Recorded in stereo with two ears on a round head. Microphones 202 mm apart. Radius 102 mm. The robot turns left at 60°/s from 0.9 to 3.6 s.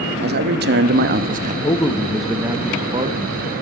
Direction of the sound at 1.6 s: 35° left.